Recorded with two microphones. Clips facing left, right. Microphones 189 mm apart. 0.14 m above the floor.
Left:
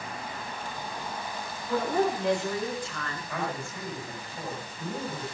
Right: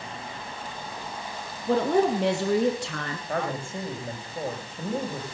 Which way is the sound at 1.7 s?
70° right (ahead or behind).